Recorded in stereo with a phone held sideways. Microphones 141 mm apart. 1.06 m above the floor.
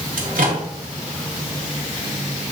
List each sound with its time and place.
0.2 s a microwave: 75° right (ahead or behind), 1.9 m